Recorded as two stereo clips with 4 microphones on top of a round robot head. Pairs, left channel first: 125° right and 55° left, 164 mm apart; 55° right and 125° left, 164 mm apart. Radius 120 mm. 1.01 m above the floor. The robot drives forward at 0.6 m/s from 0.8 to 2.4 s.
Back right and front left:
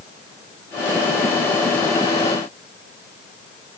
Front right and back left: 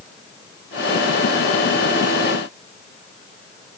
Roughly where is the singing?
No singing in this recording.